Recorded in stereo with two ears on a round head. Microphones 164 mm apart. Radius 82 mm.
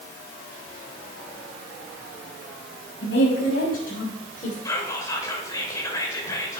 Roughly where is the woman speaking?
Left.